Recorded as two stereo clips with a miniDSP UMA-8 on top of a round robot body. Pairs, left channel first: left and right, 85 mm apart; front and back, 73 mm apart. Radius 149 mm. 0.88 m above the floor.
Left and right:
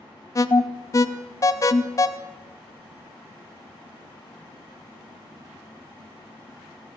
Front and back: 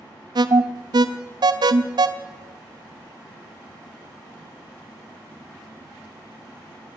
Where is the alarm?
145° left, 0.6 m.